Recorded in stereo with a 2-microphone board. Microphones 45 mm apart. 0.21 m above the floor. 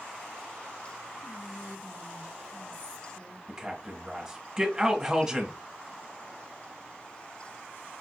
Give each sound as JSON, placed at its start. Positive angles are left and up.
{"t": 1.2, "sound": "whispering", "side_deg": 15, "distance_m": 1.2}
{"t": 3.5, "sound": "a man speaking", "side_deg": -10, "distance_m": 1.2}